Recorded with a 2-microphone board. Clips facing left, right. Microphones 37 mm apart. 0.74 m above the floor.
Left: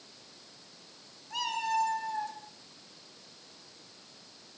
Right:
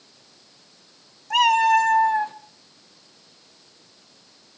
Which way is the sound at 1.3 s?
80° right.